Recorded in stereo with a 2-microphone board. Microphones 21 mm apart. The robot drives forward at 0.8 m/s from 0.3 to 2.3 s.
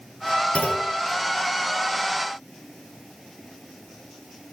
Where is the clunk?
75° left (ahead or behind), 2.5 m; by 0.9 s 70° left (ahead or behind), 2.5 m.